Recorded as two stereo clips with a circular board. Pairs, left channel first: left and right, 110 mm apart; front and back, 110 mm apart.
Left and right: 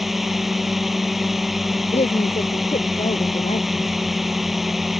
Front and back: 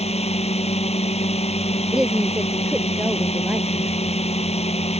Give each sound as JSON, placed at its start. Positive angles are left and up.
{"t": 0.0, "sound": "a drone", "azimuth_deg": 0}
{"t": 1.9, "sound": "a woman speaking", "azimuth_deg": 100}